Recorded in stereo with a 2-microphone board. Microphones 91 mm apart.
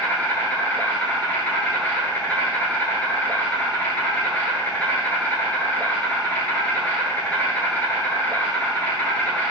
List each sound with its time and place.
0.0 s an insect: 20° left (ahead or behind), 0.8 m